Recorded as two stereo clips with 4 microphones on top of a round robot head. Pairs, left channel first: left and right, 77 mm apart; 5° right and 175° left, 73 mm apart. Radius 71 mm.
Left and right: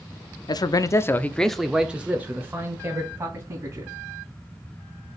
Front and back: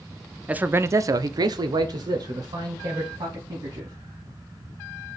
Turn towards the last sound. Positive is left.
turn(degrees=-140)